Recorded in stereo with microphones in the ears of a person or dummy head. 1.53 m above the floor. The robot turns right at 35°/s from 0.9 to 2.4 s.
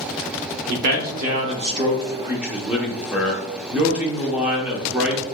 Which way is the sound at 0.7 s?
70° right.